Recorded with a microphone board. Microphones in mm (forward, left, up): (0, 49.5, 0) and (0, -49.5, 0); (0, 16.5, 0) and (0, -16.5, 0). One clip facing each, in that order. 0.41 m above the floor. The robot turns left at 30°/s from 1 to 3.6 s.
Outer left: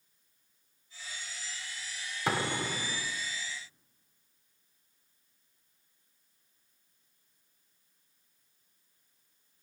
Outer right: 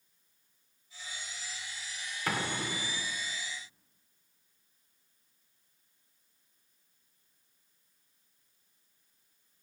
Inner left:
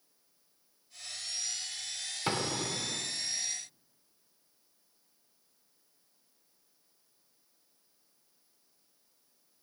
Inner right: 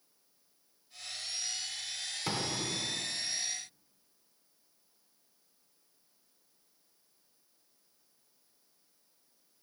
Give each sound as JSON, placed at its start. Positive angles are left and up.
{"t": 2.3, "sound": "an explosion", "side_deg": 20, "distance_m": 0.8}